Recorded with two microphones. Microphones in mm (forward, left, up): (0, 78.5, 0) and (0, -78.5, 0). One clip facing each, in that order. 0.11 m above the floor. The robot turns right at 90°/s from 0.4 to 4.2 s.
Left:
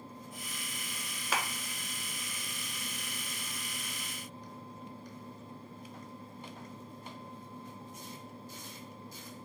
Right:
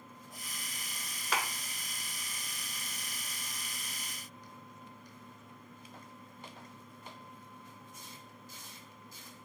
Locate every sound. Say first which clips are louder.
1.3 s a clap: even; 5° left (ahead or behind), 1.0 m; by 1.5 s 10° left (ahead or behind), 1.0 m